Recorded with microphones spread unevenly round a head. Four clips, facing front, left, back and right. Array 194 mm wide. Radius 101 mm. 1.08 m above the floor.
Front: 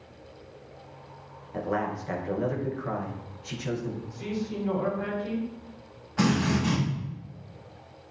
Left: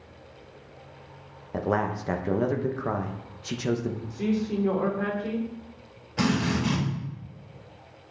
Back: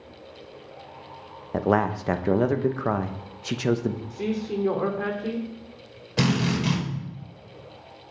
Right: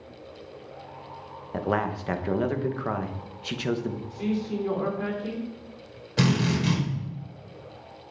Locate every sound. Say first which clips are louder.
1.5 s a man speaking: even, back 7 dB; straight behind, 0.9 m
4.1 s a man speaking: left 2 dB, back 5 dB; 170° left, 3 m
6.2 s a drill: right 1 dB, back 1 dB; 145° right, 4.5 m